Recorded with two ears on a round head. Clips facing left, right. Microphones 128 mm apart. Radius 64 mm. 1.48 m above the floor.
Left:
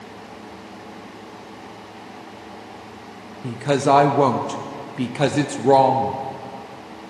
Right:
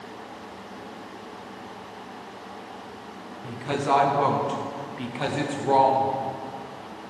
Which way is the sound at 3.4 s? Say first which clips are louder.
Left 7 dB; 55° left (ahead or behind).